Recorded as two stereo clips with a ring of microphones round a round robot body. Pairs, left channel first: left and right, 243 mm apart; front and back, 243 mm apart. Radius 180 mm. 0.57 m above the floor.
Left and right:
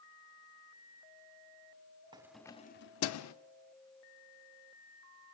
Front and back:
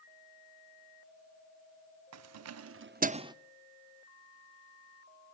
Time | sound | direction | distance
2.1 | keys jangling | 165° right | 0.8 m